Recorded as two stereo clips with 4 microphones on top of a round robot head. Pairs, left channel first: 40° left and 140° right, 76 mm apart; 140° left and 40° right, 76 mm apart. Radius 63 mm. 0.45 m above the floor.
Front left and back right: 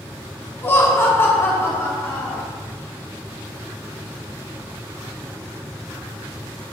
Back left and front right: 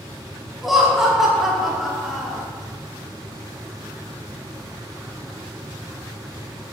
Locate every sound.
0.6 s laughter: 45° left, 1.2 m